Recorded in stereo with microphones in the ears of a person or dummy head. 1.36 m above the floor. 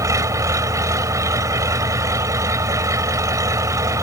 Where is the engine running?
20° right (ahead or behind).